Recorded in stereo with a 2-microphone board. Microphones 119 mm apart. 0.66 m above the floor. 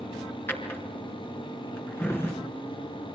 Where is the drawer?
20° left (ahead or behind), 4 m.